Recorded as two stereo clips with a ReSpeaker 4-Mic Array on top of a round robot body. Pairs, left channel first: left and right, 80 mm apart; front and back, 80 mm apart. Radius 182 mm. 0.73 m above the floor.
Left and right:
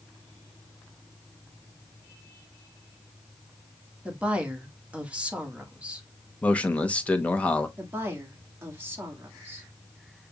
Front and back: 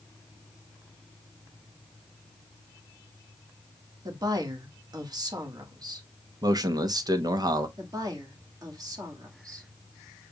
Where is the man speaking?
160° left, 1.2 m.